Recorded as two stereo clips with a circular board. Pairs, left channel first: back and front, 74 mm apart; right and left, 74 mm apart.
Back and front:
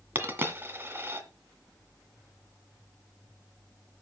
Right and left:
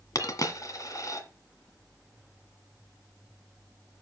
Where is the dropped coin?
60° right, 1.7 m.